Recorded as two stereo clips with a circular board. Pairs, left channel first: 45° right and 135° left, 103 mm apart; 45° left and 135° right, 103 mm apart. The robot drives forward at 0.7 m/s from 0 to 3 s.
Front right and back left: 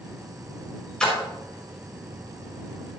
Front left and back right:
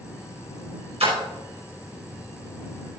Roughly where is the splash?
Behind right.